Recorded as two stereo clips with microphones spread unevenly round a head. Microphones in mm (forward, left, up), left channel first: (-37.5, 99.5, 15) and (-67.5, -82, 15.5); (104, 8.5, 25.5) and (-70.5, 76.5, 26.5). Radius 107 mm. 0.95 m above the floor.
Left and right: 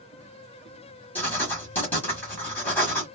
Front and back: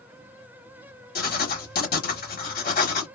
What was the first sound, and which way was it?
Writing, straight ahead.